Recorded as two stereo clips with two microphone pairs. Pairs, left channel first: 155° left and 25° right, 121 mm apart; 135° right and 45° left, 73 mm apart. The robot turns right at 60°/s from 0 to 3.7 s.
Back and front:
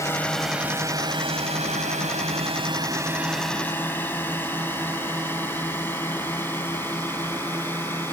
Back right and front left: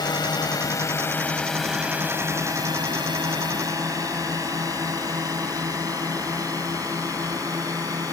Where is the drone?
145° right; by 8.1 s 80° left.